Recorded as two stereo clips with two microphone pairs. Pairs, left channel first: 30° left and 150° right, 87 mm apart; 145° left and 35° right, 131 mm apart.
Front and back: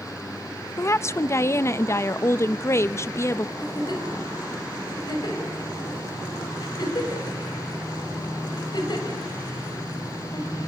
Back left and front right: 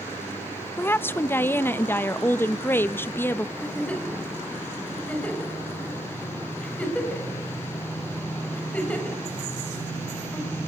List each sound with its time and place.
0.8 s a woman speaking: 75° left, 0.5 m
3.6 s a giggle: 65° left, 4.5 m